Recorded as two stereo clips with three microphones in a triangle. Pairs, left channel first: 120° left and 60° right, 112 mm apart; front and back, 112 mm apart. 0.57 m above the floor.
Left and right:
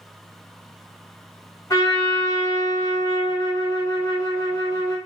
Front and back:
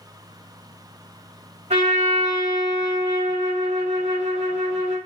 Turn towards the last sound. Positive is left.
turn(degrees=180)